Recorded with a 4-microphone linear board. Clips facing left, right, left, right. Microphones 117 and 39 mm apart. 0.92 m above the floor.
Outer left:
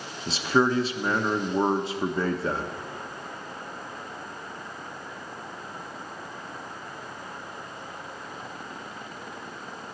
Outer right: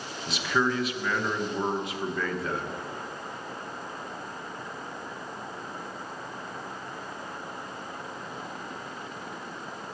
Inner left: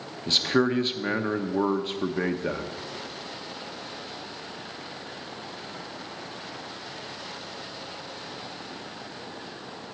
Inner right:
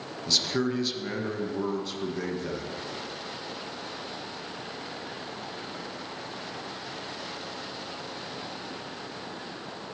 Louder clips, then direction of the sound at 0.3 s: Outer left 4 dB, inner left 5 dB; 30° left (ahead or behind).